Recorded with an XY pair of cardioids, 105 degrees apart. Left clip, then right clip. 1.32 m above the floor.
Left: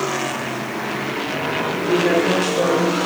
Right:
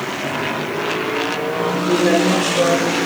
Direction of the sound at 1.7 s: 15° right.